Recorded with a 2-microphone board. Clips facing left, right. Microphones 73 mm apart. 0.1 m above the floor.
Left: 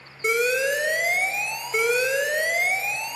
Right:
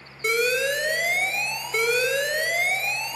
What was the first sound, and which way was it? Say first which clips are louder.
An alarm: left 1 dB; 10° left (ahead or behind).